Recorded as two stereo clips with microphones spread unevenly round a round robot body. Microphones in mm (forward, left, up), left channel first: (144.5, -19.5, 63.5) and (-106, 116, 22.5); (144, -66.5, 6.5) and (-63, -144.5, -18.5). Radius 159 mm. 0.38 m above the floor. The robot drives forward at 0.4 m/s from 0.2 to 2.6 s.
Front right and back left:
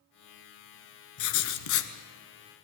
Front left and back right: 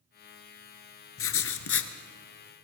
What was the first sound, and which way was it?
Writing, straight ahead.